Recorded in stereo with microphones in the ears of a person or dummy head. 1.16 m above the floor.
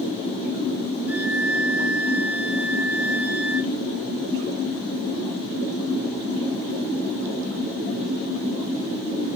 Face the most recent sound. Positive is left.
turn(degrees=-5)  # may be behind; listen again after turning